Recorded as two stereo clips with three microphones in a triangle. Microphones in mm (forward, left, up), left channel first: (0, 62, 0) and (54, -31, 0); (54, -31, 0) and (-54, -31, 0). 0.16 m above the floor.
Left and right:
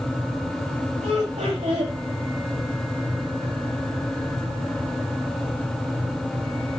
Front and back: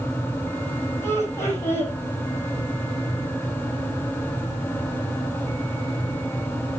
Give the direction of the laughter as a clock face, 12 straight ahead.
2 o'clock.